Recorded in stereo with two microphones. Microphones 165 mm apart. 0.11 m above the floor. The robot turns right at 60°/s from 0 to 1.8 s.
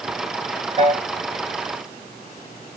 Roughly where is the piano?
Right.